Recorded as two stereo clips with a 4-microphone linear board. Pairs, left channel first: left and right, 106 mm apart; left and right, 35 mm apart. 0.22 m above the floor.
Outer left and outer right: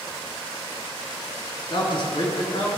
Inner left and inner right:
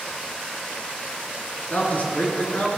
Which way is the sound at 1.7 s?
45° left (ahead or behind).